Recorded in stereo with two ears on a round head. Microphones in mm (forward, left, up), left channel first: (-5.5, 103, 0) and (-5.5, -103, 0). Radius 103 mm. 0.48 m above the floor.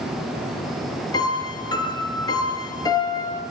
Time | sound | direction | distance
1.1 | a piano | 20° left (ahead or behind) | 5 m